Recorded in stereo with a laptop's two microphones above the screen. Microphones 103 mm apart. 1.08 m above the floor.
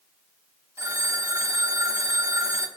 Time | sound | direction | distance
0.8 | a phone ringing | 25° right (ahead or behind) | 2 m